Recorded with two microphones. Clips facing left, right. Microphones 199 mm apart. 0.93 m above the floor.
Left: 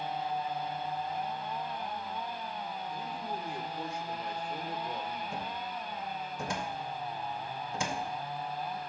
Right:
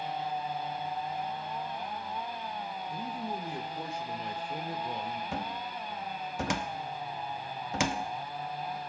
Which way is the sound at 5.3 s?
70° right (ahead or behind).